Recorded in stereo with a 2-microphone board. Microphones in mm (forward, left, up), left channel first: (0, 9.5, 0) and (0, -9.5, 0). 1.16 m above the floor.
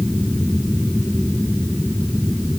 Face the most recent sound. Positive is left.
No sound to turn to.